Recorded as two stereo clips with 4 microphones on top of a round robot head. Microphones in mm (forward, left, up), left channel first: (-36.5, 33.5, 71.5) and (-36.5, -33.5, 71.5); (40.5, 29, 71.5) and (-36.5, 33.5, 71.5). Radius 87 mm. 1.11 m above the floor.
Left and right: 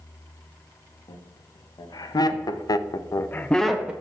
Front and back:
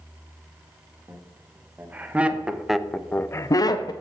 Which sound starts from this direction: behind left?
Laughter, at 1.1 s.